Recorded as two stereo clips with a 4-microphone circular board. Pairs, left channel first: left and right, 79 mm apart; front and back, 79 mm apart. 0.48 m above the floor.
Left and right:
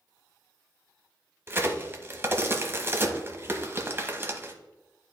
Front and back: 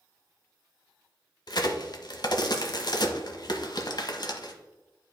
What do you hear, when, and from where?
1.5 s a crack: 30° right, 1.0 m